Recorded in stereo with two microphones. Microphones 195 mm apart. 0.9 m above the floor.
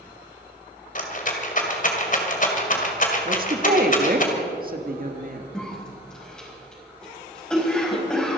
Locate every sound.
0.9 s a rattle: 45° left (ahead or behind), 2 m
3.2 s a woman speaking: 50° right (ahead or behind), 1.5 m
5.5 s a cough: 5° left (ahead or behind), 4.5 m